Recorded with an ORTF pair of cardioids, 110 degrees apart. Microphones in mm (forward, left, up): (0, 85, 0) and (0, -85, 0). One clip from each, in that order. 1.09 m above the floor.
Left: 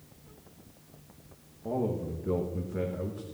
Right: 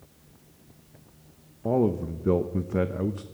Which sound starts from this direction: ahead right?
A man speaking, at 1.6 s.